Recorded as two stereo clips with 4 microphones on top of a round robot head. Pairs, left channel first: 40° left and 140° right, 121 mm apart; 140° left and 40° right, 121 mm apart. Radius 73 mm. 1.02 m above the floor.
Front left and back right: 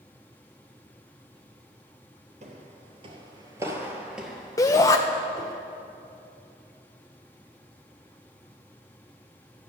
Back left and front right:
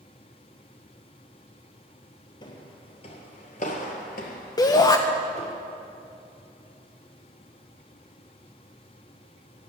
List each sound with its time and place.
2.4 s footsteps: 170° right, 1.6 m; by 5.5 s 105° left, 1.8 m
4.6 s a shout: 95° left, 0.6 m